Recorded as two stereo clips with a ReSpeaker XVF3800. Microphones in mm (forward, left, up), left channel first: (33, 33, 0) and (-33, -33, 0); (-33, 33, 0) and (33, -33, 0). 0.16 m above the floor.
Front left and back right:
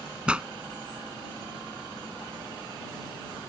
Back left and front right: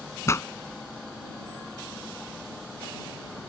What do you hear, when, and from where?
0.3 s a pop: 155° left